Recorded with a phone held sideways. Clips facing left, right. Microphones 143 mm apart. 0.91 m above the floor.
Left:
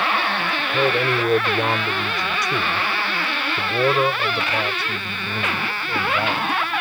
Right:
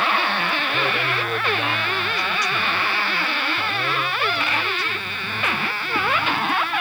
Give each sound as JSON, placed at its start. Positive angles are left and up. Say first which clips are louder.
{"t": 0.7, "sound": "a man speaking", "louder": "left 5 dB", "side_deg": 40}